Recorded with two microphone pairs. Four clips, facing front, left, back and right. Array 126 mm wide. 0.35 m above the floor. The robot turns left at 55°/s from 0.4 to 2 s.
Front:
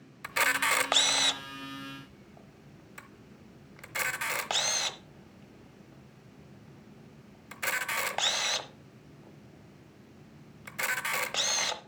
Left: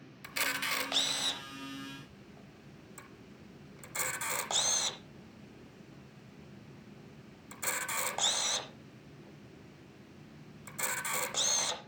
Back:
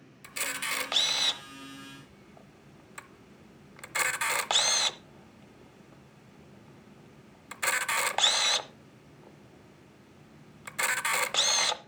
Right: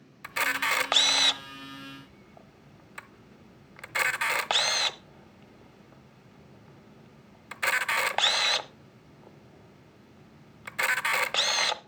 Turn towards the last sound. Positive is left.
turn(degrees=-120)